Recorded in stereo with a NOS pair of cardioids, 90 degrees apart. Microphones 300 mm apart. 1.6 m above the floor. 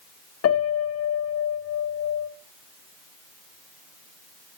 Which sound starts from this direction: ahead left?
A piano, at 0.4 s.